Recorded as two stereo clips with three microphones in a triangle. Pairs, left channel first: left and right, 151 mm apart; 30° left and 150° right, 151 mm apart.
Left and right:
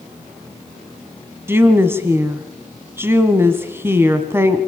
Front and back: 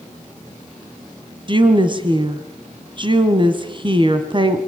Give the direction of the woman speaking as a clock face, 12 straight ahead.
5 o'clock.